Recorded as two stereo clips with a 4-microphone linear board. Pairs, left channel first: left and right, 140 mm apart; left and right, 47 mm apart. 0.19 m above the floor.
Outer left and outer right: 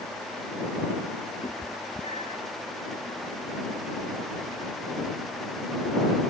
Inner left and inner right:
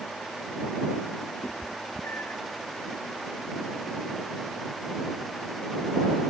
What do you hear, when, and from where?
1.4 s a cat meowing: 45° left (ahead or behind)